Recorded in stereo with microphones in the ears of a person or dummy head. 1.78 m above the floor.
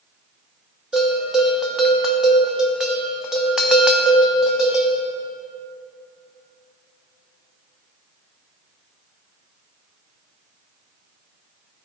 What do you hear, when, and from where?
0.9 s a bell: 5° right (ahead or behind), 0.7 m